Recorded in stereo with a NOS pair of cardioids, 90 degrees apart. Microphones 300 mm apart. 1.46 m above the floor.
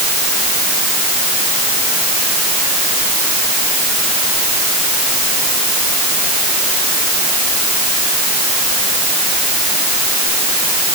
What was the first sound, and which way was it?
Only background noise.